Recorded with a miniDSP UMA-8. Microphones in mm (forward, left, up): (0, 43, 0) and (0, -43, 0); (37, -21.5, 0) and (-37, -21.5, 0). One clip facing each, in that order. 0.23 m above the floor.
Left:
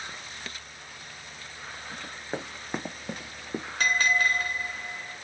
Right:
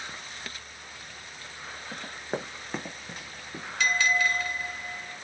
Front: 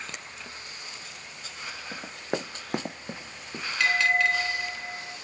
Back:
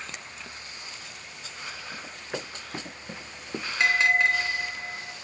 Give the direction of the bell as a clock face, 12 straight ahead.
8 o'clock.